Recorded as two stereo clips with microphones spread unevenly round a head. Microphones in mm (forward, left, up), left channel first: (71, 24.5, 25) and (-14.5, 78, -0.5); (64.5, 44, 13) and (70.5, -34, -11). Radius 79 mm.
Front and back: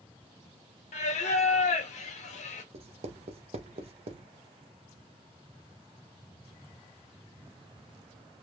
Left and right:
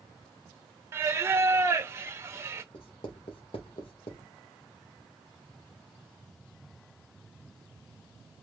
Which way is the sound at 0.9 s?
30° right.